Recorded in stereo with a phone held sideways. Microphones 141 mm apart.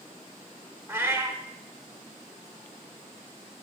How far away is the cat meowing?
About 0.7 m.